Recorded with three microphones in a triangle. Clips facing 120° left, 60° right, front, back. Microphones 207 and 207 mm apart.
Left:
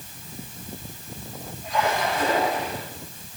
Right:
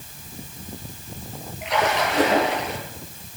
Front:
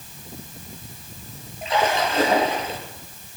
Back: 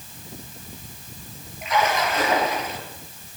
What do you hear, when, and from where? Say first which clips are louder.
1.6 s a splash: right 2 dB, front 1 dB; 60° right, 6 m